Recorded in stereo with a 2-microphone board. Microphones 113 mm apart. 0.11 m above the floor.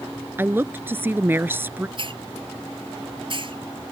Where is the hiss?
50° right (ahead or behind).